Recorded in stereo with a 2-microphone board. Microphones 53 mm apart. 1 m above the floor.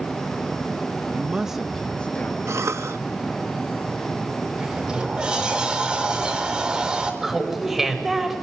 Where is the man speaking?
30° right (ahead or behind), 1.3 m; by 2.4 s 35° left (ahead or behind), 1.7 m.